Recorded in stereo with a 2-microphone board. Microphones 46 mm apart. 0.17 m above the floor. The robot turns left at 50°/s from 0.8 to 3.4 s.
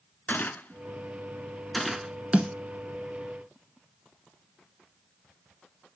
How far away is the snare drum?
About 1.5 m.